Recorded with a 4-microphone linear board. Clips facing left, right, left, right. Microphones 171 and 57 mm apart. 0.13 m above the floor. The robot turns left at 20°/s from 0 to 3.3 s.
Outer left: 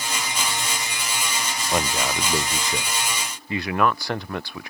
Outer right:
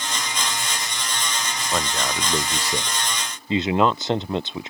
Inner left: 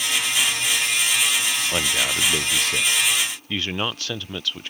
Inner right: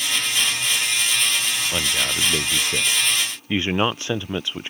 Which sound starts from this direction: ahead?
A man speaking, at 1.7 s.